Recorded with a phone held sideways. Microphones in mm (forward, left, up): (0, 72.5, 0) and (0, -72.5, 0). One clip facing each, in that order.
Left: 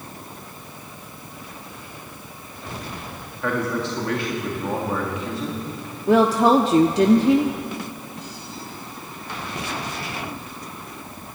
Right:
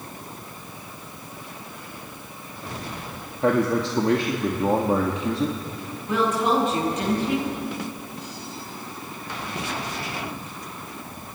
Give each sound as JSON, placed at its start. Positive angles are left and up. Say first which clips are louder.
{"t": 3.4, "sound": "a man speaking", "louder": "right 4 dB", "side_deg": -30, "distance_m": 1.8}
{"t": 6.1, "sound": "a woman speaking", "louder": "left 7 dB", "side_deg": 75, "distance_m": 1.3}